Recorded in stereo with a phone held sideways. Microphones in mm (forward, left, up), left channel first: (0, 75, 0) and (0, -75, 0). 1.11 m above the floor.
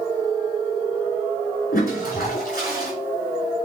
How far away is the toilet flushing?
About 3.5 m.